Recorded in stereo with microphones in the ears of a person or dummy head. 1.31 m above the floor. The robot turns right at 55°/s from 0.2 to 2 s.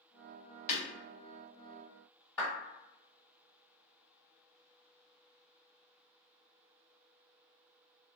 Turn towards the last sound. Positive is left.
turn(degrees=5)  # may be behind; listen again after turning